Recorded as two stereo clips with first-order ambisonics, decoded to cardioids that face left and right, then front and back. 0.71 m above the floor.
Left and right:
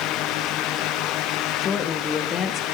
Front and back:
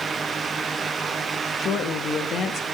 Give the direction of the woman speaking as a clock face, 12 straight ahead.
11 o'clock.